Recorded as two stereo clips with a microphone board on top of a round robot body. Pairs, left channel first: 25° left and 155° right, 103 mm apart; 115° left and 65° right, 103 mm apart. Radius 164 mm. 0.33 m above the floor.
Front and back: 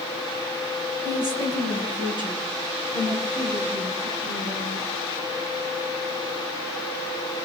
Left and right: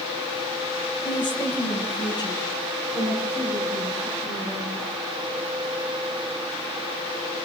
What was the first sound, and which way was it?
A woman speaking, 150° left.